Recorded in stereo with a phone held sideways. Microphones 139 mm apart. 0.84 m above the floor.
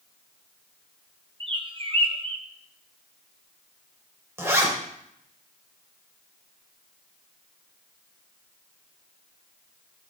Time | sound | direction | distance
1.4 | a bird | 40° right (ahead or behind) | 0.8 m
4.4 | a zipper | 20° right (ahead or behind) | 2 m